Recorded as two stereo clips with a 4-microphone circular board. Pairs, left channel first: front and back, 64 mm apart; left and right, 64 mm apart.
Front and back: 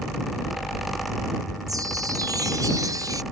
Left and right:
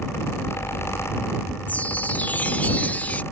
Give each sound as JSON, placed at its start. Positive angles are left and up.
{"t": 1.7, "sound": "a chime", "azimuth_deg": 155}